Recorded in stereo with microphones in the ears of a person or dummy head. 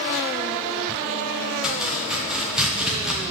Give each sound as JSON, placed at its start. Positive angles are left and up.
{"t": 1.6, "sound": "chopping", "side_deg": 5, "distance_m": 1.0}